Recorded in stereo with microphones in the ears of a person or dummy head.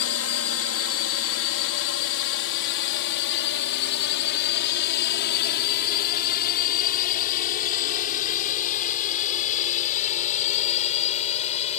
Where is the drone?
65° left (ahead or behind); by 11.8 s 35° left (ahead or behind).